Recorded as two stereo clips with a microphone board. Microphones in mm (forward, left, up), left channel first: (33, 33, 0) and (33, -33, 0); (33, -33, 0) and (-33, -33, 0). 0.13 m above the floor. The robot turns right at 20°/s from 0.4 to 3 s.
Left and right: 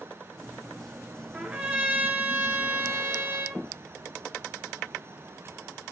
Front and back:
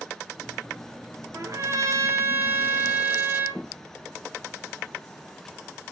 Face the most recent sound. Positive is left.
turn(degrees=-130)